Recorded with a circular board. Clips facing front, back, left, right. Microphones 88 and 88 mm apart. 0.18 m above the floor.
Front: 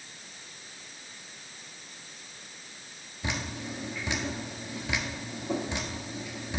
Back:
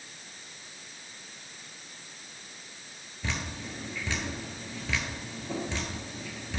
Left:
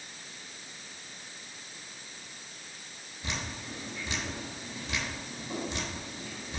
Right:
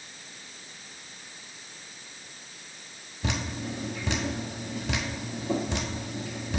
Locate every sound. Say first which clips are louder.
3.2 s dripping: front 2 dB, right 6 dB; 75° right, 1.2 m